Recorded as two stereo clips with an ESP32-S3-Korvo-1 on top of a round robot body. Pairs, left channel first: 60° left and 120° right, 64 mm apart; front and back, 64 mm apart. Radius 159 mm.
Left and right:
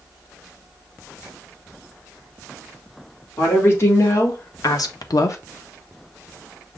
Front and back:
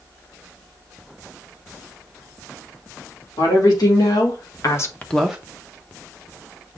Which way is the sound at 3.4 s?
10° left.